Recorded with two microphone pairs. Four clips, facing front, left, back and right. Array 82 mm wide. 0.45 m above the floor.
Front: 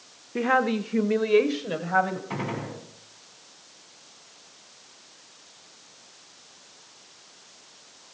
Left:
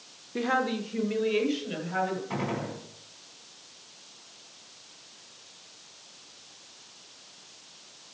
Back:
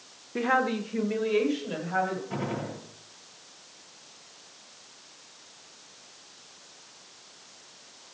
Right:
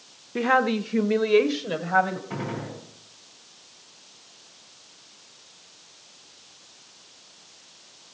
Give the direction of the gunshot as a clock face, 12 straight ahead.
11 o'clock.